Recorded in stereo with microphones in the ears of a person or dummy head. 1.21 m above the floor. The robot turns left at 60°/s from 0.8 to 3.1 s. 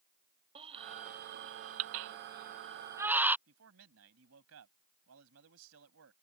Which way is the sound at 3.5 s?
80° right.